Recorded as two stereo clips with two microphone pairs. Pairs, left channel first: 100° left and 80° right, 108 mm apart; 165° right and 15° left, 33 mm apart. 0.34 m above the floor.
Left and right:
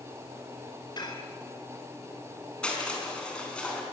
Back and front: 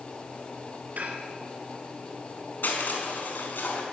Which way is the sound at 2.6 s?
Straight behind.